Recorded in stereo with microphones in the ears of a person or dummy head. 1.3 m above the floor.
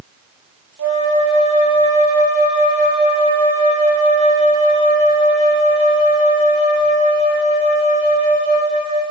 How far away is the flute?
About 6 m.